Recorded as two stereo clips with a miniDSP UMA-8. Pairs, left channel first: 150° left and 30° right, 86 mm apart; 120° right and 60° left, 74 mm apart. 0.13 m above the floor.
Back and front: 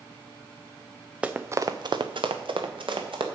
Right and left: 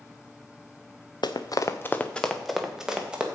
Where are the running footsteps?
110° right, 0.9 m; by 3.2 s 15° right, 2 m.